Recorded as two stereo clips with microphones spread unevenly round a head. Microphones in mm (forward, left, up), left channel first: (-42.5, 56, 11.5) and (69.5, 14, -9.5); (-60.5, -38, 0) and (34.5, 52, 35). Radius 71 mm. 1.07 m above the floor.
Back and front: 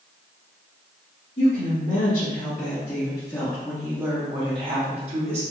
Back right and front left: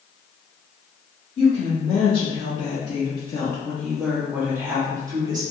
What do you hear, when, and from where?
1.4 s a woman speaking: 170° right, 1.6 m; by 5.4 s 20° right, 1.2 m